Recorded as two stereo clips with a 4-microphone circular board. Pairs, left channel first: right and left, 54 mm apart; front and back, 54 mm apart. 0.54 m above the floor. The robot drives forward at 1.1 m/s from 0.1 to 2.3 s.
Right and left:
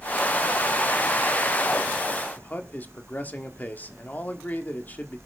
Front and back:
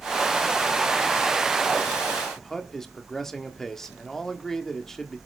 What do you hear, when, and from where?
2.4 s a man speaking: 75° right, 1.4 m